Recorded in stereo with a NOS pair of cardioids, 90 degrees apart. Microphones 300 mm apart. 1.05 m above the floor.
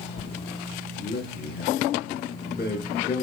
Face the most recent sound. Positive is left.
turn(degrees=35)